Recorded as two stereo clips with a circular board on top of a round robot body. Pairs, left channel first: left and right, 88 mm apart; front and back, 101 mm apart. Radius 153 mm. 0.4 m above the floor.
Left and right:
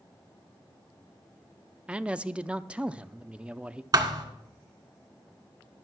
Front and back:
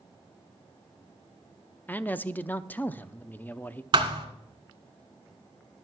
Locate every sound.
1.9 s a man speaking: 35° right, 0.8 m
3.9 s a thud: 140° right, 1.4 m